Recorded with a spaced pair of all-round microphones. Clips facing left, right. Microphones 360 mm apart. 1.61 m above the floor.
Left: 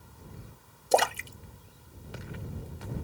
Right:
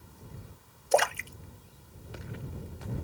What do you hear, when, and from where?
0.9 s a splash: 50° left (ahead or behind)